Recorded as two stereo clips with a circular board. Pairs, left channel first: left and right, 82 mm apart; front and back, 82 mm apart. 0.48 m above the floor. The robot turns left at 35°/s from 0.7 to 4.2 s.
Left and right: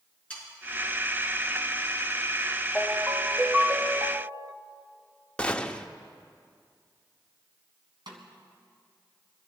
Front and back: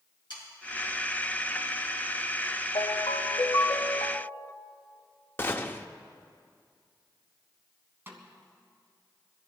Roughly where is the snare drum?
Behind right.